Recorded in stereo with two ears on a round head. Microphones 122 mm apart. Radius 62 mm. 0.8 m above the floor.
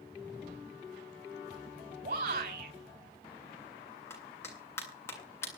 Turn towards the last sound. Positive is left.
turn(degrees=20)  # may be behind; listen again after turning